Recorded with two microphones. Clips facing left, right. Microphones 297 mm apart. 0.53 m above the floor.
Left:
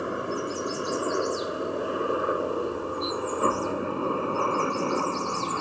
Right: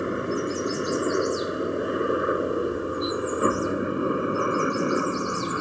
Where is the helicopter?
20° right (ahead or behind).